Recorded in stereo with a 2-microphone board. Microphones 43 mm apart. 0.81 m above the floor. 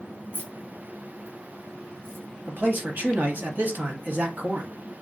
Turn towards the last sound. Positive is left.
turn(degrees=-50)  # may be behind; listen again after turning